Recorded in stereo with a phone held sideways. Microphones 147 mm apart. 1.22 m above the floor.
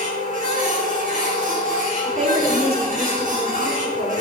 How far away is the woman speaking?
About 4.5 m.